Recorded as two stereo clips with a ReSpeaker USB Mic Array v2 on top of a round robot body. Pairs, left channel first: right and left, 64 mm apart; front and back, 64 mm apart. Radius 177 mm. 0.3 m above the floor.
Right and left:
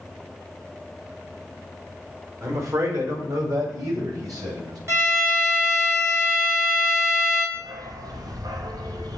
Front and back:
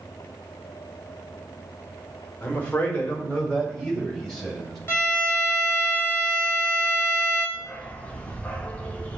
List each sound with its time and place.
2.4 s a man speaking: 55° left, 2 m; by 4.8 s 80° left, 3.5 m
4.9 s a violin: 50° left, 2 m
7.5 s a dog barking: 70° left, 0.9 m